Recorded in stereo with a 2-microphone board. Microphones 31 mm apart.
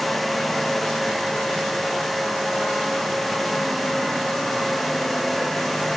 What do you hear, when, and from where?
Only background noise.